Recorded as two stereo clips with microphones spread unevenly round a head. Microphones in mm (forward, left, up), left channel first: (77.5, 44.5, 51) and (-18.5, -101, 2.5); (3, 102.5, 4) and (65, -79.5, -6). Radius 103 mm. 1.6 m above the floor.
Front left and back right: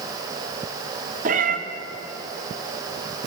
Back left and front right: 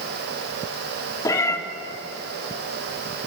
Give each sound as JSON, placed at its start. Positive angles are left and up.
{"t": 1.2, "sound": "a cat meowing", "azimuth_deg": 180, "distance_m": 2.0}